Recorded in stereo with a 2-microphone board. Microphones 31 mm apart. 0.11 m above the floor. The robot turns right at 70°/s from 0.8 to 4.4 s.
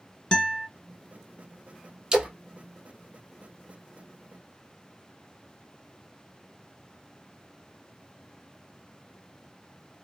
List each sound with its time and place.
0.3 s a guitar: 25° left (ahead or behind), 0.5 m
2.1 s a splash: 20° right (ahead or behind), 0.9 m; by 2.3 s 35° right (ahead or behind), 0.9 m